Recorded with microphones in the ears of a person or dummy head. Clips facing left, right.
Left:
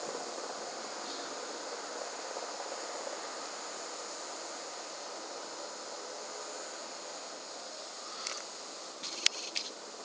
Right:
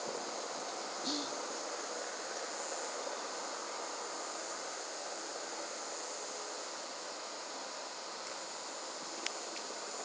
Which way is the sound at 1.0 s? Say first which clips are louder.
Right 4 dB; 75° right (ahead or behind).